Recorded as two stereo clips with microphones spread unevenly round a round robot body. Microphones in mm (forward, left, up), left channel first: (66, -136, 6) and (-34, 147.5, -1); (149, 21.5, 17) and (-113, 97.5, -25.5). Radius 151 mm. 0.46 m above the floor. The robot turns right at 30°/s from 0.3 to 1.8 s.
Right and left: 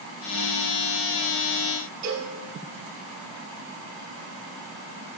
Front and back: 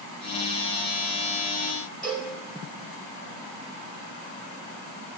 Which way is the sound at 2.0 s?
70° left.